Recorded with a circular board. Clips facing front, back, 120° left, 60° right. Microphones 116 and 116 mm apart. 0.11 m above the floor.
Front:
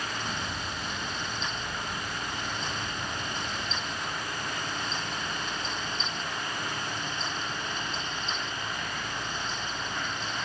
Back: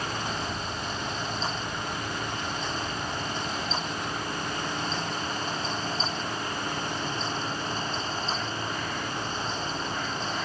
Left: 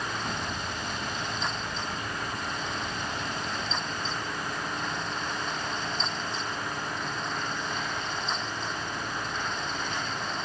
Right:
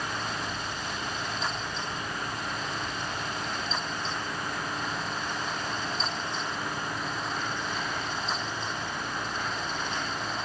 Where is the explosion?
85° left, 7 m.